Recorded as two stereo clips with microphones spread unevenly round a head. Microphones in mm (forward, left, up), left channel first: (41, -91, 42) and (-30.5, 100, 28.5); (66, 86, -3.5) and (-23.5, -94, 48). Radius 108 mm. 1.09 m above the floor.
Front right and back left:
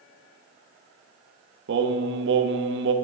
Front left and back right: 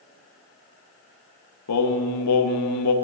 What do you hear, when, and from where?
1.7 s singing: 75° left, 0.9 m